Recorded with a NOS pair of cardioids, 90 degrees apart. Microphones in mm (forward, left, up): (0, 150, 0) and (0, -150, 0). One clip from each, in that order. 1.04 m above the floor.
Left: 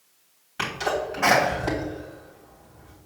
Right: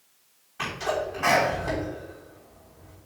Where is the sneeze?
55° left, 3 m.